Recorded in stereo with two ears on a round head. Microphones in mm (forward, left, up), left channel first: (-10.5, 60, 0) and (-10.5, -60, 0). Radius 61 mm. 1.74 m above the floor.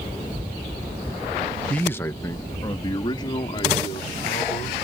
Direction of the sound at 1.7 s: 10° left (ahead or behind).